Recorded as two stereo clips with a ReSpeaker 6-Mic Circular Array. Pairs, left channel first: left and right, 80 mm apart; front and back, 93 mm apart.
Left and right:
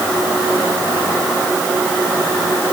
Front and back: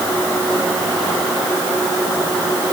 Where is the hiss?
I don't hear a hiss.